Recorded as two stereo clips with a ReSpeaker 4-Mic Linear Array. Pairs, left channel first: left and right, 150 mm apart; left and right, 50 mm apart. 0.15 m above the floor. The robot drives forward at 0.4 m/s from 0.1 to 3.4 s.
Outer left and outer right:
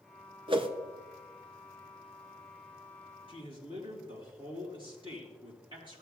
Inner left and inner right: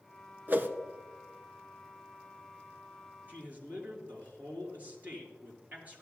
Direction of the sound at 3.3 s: 35° right (ahead or behind).